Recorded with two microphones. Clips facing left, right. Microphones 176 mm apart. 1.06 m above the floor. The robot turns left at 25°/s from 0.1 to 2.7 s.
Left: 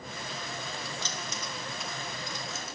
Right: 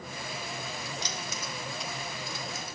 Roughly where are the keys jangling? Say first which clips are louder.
Right 1 dB; right.